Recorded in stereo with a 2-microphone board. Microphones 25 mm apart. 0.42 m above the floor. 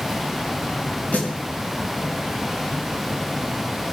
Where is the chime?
No chime in this recording.